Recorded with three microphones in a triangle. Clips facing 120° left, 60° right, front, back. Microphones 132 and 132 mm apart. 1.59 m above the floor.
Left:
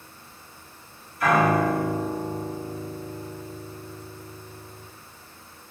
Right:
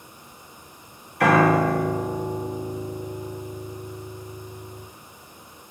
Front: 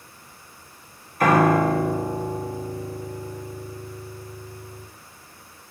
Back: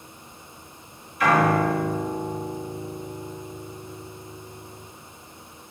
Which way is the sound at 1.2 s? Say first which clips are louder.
Right 3 dB, front 2 dB; 45° right.